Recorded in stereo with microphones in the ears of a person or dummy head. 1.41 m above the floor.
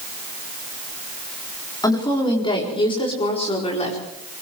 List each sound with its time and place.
1.8 s a woman speaking: 25° left (ahead or behind), 4 m; by 4.0 s 45° left (ahead or behind), 5 m